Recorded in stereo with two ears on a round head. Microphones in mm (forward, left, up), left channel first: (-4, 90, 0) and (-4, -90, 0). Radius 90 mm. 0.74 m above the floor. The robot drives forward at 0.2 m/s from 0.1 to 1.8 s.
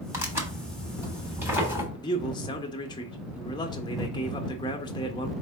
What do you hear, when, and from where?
0.1 s tearing paper: 10° right (ahead or behind), 1.2 m
1.9 s a man speaking: 20° left (ahead or behind), 0.7 m